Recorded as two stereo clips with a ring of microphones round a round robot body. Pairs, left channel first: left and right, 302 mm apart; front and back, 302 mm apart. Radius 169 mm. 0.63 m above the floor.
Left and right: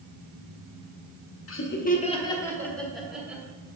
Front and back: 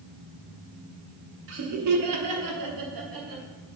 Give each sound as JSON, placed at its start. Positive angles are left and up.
{"t": 1.5, "sound": "laughter", "azimuth_deg": 130, "distance_m": 1.1}